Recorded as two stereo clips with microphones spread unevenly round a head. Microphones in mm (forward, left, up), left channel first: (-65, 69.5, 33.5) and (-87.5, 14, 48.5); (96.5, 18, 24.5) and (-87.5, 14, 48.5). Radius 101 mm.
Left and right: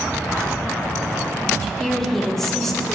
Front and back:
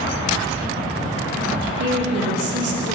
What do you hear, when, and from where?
1.6 s a woman speaking: 155° left, 3 m